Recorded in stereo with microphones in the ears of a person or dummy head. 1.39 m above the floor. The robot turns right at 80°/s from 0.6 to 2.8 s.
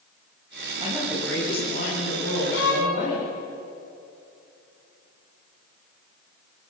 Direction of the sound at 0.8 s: 25° right.